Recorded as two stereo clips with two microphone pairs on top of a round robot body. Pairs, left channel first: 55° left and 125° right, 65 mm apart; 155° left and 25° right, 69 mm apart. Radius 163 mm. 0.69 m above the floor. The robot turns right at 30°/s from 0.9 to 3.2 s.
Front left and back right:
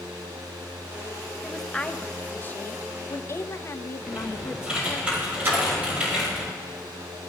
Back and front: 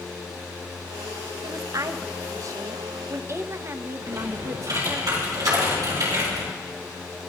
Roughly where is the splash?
Ahead right.